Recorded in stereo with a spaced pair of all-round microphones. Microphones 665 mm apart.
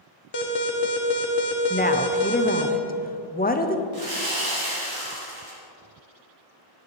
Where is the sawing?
55° right (ahead or behind), 3.5 m.